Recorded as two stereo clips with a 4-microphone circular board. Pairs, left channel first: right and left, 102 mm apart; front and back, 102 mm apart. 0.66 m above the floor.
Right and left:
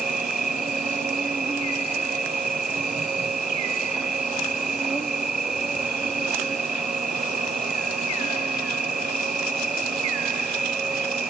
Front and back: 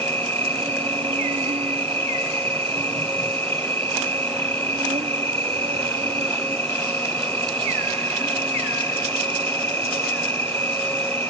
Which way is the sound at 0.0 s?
175° left.